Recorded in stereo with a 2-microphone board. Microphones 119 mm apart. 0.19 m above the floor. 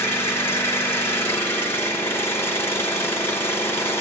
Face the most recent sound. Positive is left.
turn(degrees=20)  # may be behind; listen again after turning